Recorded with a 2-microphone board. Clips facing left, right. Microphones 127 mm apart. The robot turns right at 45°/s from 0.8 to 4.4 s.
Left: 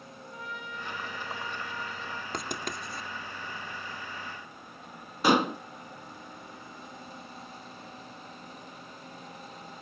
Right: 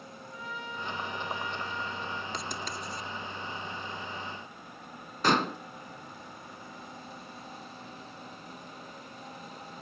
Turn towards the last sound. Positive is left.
turn(degrees=10)  # may be behind; listen again after turning